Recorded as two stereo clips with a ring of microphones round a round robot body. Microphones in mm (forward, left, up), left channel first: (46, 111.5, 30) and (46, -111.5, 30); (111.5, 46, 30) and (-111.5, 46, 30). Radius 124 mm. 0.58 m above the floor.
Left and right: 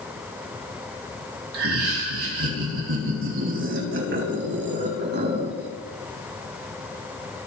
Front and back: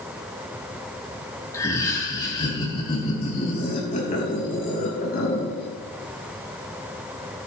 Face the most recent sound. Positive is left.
turn(degrees=-50)